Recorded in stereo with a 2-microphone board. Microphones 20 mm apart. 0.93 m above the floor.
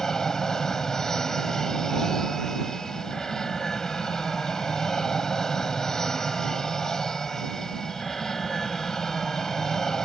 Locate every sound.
0.0 s an aircraft: 20° left (ahead or behind)